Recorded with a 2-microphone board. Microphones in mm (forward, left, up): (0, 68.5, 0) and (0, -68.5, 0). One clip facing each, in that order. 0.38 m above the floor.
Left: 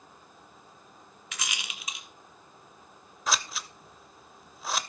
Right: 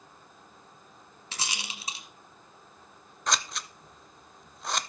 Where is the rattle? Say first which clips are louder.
Right 2 dB; 30° right (ahead or behind), 1.3 m.